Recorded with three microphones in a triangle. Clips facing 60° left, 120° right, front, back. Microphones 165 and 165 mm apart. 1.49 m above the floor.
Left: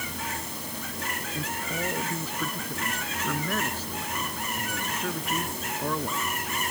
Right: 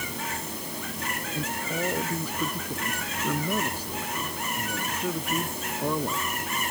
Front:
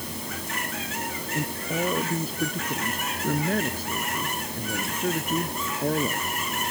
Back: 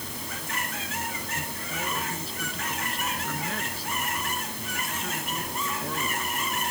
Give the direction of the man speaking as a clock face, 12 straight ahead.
1 o'clock.